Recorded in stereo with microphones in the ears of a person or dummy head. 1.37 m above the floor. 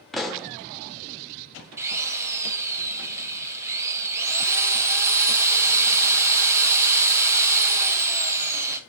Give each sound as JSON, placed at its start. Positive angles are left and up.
{"t": 0.1, "sound": "a pop", "side_deg": 0, "distance_m": 0.6}
{"t": 1.8, "sound": "a drill", "side_deg": -10, "distance_m": 0.9}